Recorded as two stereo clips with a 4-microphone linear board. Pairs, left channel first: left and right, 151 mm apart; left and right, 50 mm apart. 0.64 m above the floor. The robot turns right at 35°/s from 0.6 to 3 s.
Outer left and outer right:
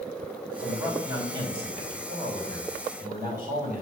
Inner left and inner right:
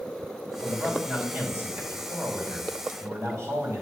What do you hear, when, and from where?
0.6 s a man speaking: 170° right, 2.5 m; by 3.8 s 85° right, 2.5 m